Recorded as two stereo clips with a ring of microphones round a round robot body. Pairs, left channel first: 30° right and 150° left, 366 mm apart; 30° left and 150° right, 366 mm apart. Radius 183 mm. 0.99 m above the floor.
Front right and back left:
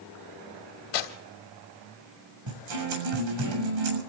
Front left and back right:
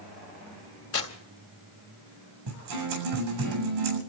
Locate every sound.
0.9 s tearing paper: 20° right, 2.5 m
2.5 s a guitar: 170° left, 7.5 m